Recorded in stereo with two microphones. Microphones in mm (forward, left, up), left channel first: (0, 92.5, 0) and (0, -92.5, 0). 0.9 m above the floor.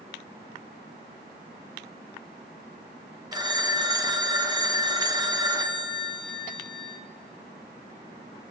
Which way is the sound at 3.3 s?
20° right (ahead or behind).